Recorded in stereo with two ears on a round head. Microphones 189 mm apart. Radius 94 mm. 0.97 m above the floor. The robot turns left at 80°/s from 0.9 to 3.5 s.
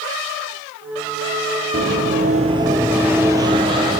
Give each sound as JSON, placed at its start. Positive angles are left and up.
{"t": 1.7, "sound": "running footsteps", "side_deg": -40, "distance_m": 1.5}